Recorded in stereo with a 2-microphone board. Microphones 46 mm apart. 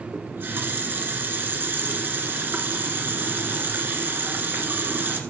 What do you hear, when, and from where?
0.1 s a running tap: 50° right (ahead or behind), 1.5 m